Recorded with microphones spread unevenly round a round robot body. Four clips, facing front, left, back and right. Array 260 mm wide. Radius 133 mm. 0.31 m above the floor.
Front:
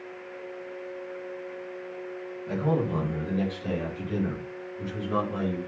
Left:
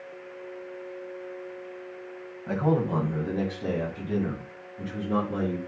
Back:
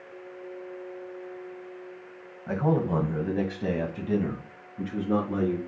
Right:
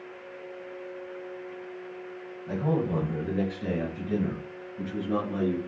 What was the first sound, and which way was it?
A man speaking, 140° left.